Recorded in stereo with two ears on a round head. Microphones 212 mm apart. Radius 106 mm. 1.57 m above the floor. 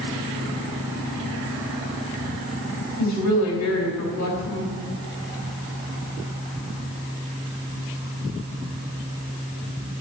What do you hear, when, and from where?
3.0 s a woman speaking: 75° left (ahead or behind), 4 m